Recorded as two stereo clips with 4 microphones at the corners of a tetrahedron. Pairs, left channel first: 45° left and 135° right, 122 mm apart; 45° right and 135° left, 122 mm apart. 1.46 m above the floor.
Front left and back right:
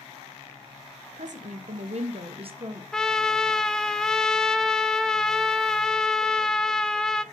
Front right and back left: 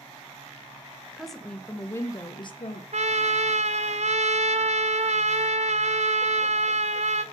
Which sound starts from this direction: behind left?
A trumpet, at 2.9 s.